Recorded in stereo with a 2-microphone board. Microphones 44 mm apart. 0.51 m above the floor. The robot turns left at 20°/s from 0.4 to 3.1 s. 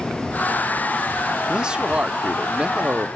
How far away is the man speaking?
About 0.7 m.